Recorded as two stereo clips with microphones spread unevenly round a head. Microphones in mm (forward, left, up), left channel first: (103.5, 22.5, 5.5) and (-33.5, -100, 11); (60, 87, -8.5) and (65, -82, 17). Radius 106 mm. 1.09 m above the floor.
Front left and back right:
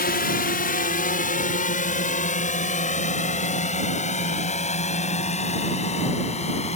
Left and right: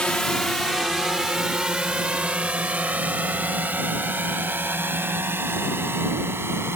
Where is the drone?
10° left; by 6.8 s 15° right.